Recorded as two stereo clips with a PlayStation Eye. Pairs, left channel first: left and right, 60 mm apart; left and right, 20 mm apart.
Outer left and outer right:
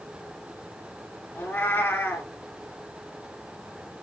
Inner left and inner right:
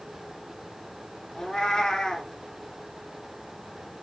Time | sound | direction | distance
1.4 | a cat meowing | 30° left (ahead or behind) | 1.6 m